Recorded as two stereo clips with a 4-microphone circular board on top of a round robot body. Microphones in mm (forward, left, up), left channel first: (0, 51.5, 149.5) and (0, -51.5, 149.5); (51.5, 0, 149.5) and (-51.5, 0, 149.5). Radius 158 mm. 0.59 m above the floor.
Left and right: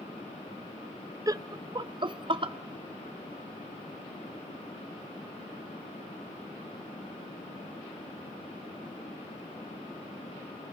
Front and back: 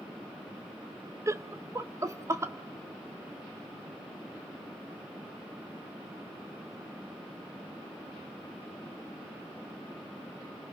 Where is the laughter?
130° right, 1.0 m; by 2.5 s 120° right, 1.9 m.